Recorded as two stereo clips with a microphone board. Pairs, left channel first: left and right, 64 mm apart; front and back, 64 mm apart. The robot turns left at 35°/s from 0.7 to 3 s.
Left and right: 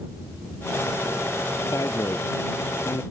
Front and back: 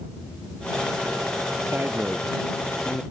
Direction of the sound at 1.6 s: 130° left.